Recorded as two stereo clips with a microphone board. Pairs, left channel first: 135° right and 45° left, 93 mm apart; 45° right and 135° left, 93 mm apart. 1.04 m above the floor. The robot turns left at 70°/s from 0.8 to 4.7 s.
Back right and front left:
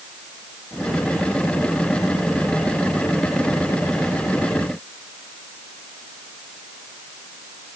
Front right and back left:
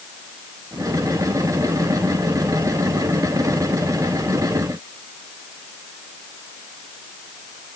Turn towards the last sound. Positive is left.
No sound to turn to.